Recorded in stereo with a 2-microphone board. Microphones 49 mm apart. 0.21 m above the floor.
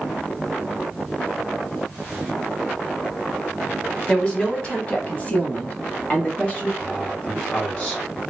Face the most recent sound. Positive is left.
turn(degrees=25)  # may be behind; listen again after turning